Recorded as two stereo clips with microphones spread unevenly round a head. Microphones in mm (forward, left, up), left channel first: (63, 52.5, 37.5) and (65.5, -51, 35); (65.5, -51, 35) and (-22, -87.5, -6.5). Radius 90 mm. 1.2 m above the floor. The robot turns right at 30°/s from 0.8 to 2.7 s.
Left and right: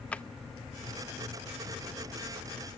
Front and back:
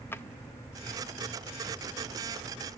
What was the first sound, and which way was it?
A drawer, 20° left.